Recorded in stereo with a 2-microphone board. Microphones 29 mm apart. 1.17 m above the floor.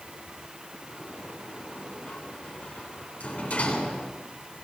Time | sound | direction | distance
0.9 | a sliding door | 55° left (ahead or behind) | 9 m